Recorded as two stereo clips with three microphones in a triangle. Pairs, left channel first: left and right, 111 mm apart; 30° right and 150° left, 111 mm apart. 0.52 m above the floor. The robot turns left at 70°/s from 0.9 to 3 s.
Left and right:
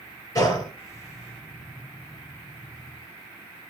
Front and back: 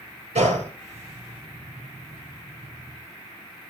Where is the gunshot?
150° left, 8 m.